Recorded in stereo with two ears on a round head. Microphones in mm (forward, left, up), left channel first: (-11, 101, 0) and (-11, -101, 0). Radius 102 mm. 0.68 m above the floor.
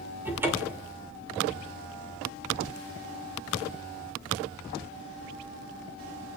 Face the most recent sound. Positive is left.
turn(degrees=-10)  # may be behind; listen again after turning